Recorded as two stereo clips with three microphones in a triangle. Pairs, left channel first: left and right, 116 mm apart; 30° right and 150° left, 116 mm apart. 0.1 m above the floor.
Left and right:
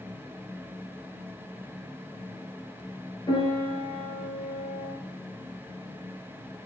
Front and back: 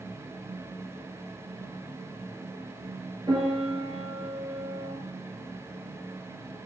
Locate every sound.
3.3 s a piano: 120° left, 2 m